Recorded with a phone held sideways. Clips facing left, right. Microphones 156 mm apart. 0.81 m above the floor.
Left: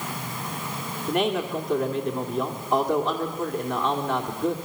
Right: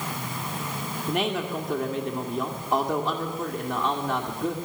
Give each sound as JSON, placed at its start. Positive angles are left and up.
{"t": 1.1, "sound": "a man speaking", "side_deg": 0, "distance_m": 2.0}